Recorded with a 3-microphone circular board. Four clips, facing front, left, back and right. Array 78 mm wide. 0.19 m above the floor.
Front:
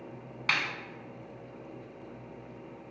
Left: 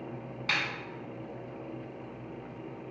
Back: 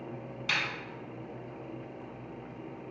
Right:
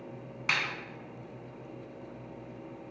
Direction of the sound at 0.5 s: 20° right.